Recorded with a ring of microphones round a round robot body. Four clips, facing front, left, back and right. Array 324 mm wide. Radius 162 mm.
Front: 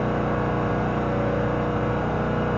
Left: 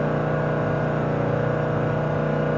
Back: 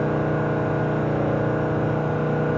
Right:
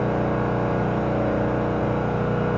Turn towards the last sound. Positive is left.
turn(degrees=-145)